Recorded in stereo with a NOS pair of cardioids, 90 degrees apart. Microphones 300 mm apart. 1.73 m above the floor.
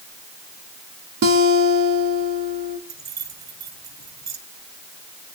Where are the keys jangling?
60° right, 7 m.